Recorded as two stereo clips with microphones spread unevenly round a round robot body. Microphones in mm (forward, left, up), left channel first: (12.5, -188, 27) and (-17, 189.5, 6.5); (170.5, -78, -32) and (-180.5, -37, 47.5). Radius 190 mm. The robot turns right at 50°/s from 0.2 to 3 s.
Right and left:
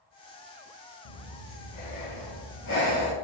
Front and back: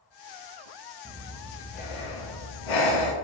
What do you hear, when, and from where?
1.1 s breathing: 110° right, 1.5 m; by 3.1 s 10° right, 1.5 m